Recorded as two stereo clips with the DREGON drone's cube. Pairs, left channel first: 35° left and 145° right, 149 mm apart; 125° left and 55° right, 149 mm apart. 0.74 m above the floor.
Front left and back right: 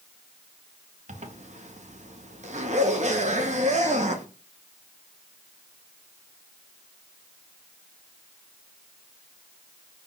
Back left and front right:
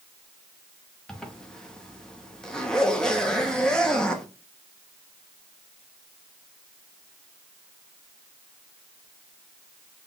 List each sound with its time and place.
1.1 s a zipper: 150° right, 0.7 m